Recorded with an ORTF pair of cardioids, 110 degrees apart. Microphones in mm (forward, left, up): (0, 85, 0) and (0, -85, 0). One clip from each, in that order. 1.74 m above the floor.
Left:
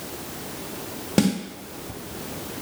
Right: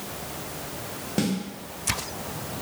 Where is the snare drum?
30° left, 0.7 m.